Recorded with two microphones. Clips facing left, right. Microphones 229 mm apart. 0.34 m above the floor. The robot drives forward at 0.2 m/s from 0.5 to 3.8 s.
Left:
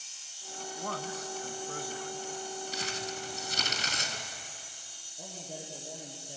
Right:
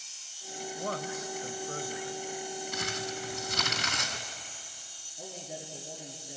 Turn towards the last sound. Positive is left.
turn(degrees=-75)  # may be behind; listen again after turning